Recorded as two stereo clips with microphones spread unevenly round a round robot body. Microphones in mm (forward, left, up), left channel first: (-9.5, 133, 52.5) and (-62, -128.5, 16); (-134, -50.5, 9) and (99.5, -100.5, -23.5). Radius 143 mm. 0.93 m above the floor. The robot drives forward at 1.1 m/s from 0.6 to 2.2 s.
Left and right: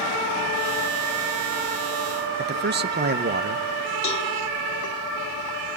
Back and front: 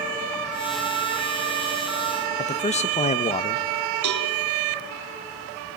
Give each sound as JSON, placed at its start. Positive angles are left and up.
{"t": 2.4, "sound": "a man speaking", "azimuth_deg": -130, "distance_m": 0.9}
{"t": 4.0, "sound": "a cowbell", "azimuth_deg": 10, "distance_m": 2.0}